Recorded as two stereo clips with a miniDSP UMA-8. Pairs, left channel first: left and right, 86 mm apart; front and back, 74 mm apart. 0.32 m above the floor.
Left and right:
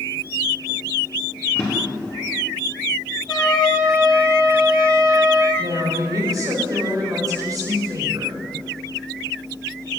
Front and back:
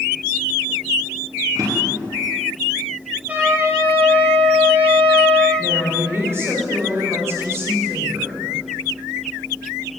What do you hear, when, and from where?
1.6 s a drawer: 150° left, 4.5 m
3.3 s a trumpet: 115° left, 4.5 m
5.6 s a woman speaking: 130° right, 4 m